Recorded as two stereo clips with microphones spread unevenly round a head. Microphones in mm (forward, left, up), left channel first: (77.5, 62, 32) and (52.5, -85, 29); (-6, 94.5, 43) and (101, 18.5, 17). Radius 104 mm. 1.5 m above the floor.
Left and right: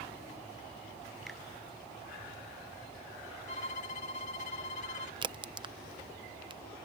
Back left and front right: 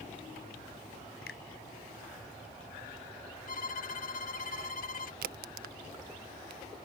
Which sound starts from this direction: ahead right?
A crack, at 5.2 s.